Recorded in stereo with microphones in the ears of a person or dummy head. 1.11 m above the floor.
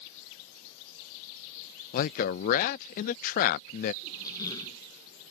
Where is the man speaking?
40° left (ahead or behind).